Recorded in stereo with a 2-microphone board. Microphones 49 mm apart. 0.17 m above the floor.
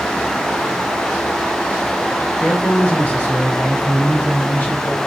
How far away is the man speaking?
About 1.2 m.